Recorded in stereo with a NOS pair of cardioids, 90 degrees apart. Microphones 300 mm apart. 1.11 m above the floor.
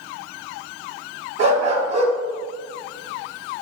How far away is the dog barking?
About 3 m.